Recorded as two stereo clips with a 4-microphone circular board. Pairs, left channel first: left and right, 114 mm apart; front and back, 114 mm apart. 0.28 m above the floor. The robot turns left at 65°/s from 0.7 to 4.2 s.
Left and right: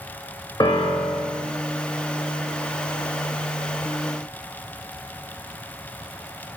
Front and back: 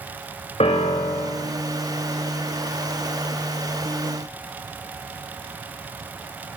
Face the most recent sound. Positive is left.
turn(degrees=165)